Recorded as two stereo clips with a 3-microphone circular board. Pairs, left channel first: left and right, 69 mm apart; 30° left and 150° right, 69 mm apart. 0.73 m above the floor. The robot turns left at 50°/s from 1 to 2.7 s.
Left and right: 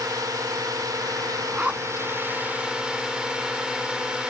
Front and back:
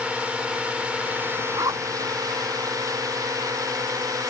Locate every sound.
0.0 s a drone: 80° right; by 4.3 s 165° right
1.6 s a zipper: 155° right; by 2.1 s straight behind